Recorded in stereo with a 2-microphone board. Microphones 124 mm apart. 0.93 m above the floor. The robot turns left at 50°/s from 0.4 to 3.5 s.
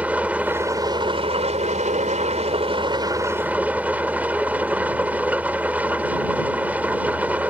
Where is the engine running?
10° right; by 7.5 s 165° right.